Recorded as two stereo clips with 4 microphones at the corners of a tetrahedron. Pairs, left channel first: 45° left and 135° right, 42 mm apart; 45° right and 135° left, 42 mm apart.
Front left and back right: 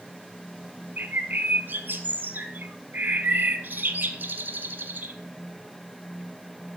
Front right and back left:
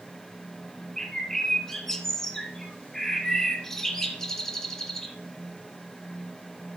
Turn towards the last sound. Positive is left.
turn(degrees=-125)